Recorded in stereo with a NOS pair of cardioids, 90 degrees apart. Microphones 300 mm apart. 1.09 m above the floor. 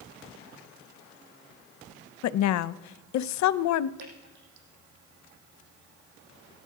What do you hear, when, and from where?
2.2 s a woman speaking: 65° left, 0.6 m
4.0 s dripping: 65° right, 7 m